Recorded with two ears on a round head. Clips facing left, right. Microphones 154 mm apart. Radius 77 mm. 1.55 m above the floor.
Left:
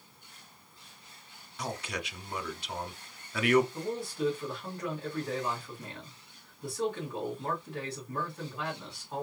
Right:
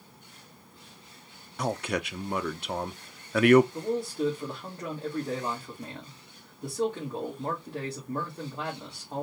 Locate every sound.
1.6 s a man speaking: 45° right (ahead or behind), 0.6 m
3.7 s a man speaking: 20° right (ahead or behind), 1.8 m